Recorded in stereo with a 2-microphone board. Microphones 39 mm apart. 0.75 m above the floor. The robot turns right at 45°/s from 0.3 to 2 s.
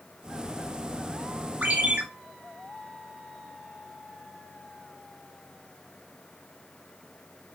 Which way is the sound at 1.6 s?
50° right (ahead or behind).